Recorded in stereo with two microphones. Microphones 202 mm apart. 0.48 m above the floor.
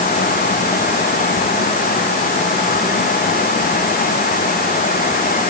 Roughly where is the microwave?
No microwave in this recording.